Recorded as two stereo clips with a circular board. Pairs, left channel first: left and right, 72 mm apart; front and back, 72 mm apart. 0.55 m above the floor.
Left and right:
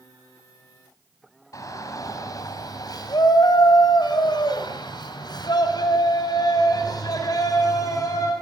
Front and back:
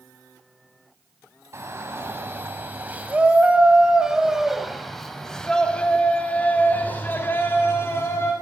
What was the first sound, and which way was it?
A shout, 130° left.